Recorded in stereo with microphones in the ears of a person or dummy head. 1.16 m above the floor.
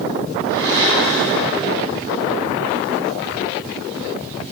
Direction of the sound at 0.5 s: 65° right (ahead or behind).